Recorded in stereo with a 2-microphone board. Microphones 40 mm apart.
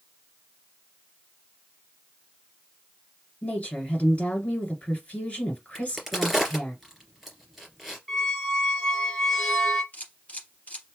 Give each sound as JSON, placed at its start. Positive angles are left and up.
{"t": 3.4, "sound": "a woman speaking", "side_deg": 35, "distance_m": 2.0}
{"t": 5.8, "sound": "a crack", "side_deg": -5, "distance_m": 2.5}
{"t": 8.1, "sound": "a squeak", "side_deg": 5, "distance_m": 1.3}
{"t": 9.9, "sound": "a camera shutter", "side_deg": 40, "distance_m": 2.5}